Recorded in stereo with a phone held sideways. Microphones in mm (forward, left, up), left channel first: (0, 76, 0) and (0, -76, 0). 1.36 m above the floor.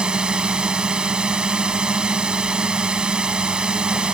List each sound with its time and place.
0.0 s a drone: 5° right (ahead or behind)